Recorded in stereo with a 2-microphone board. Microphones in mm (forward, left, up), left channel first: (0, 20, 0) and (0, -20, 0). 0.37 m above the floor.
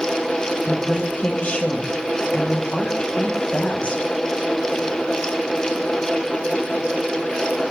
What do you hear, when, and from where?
0.7 s a woman speaking: 35° left (ahead or behind), 2.5 m